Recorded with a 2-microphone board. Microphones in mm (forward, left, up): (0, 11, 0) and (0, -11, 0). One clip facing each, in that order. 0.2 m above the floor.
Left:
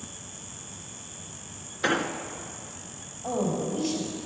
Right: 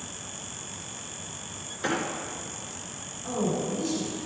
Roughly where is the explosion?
Left.